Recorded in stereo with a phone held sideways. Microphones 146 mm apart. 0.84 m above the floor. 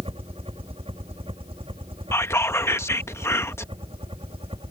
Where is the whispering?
20° left (ahead or behind).